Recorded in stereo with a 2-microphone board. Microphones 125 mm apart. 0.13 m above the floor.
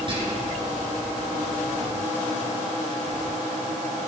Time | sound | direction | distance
0.1 | whispering | 40° right (ahead or behind) | 2 m